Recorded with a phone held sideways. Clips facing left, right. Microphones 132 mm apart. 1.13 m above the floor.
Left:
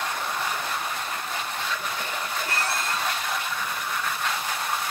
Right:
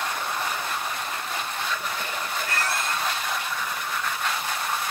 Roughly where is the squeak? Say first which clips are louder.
Even; left.